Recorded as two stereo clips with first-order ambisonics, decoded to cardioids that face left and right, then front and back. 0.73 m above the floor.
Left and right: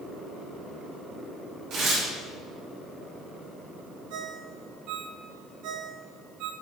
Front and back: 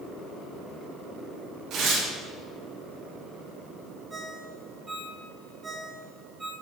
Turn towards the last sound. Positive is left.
turn(degrees=-105)